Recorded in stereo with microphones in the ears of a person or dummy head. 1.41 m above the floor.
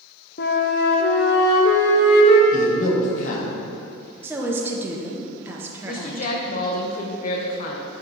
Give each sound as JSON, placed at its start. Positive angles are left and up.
{"t": 0.4, "sound": "a flute", "side_deg": 50, "distance_m": 0.7}
{"t": 2.5, "sound": "a man speaking", "side_deg": 50, "distance_m": 1.4}
{"t": 4.2, "sound": "a woman speaking", "side_deg": -10, "distance_m": 0.8}
{"t": 5.8, "sound": "a woman speaking", "side_deg": 45, "distance_m": 0.9}